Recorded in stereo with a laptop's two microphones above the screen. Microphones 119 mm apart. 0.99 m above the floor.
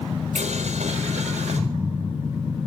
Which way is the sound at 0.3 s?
75° right (ahead or behind).